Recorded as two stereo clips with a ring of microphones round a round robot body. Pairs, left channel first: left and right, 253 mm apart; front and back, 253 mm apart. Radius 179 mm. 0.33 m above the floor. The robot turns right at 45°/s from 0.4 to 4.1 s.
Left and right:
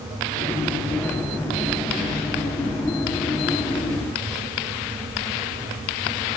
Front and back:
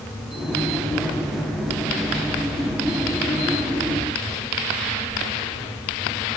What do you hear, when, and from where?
Only background noise.